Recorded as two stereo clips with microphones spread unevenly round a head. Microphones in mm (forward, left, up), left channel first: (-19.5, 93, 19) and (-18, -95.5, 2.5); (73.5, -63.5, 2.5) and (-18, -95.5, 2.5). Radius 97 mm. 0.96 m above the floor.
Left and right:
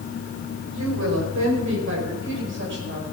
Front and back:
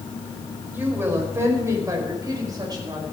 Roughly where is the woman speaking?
Right.